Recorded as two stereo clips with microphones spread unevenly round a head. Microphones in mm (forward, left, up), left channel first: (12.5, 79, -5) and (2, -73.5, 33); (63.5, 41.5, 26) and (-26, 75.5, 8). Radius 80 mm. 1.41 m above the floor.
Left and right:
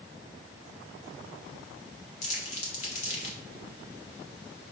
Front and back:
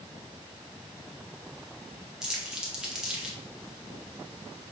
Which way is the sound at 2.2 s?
60° left.